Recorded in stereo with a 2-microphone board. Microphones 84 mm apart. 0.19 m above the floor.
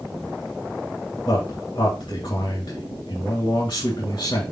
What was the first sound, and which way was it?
A man speaking, 60° left (ahead or behind).